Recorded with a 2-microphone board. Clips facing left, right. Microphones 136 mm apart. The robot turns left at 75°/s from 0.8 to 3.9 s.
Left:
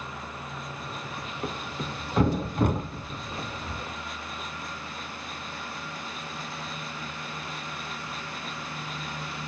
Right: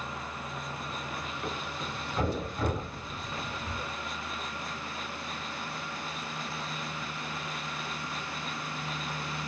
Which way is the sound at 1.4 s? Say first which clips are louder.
Left 5 dB; 30° left (ahead or behind).